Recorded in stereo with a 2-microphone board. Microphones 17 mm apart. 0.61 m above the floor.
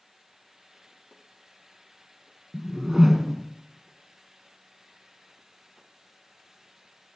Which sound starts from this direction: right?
A whoosh, at 2.5 s.